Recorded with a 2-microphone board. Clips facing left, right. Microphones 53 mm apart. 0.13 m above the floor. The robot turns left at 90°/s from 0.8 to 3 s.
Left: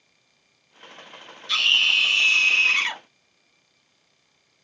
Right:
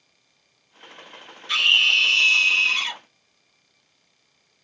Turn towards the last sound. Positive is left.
turn(degrees=80)